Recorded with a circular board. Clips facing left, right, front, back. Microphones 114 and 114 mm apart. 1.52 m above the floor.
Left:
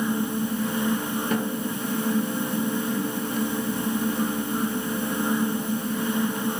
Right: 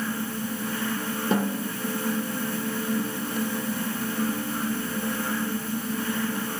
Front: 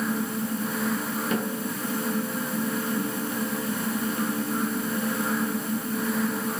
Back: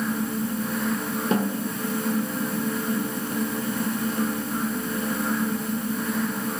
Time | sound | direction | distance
1.3 | a snare drum | 140° right | 0.6 m